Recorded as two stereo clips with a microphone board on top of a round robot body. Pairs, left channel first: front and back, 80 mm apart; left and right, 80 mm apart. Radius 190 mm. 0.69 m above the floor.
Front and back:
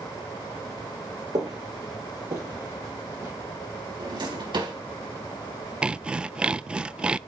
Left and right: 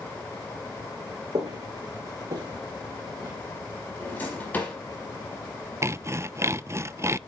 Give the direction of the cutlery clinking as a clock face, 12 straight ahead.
I don't hear cutlery clinking.